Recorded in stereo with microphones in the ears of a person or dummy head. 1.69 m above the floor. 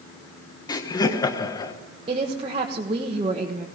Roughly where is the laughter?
Left.